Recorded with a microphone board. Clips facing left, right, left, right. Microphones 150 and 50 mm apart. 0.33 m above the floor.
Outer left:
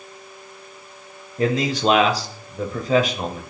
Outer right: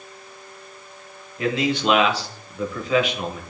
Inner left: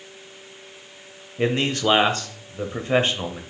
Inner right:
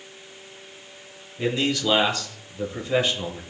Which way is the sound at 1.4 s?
40° left (ahead or behind).